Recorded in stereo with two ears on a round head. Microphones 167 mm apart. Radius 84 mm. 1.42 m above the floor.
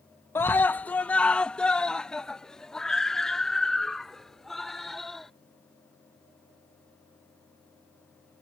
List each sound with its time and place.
0.3 s a scream: 15° left (ahead or behind); by 5.3 s centre (ahead or behind)